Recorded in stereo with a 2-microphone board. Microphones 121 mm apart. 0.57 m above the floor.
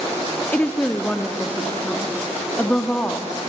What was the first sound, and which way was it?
A woman speaking, 15° left (ahead or behind).